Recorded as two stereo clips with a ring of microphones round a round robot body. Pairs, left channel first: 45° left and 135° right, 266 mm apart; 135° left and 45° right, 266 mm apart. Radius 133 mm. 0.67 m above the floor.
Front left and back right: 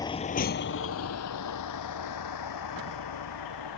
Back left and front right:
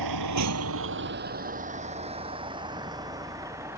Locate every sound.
0.0 s a vehicle: 30° right; by 3.8 s 35° left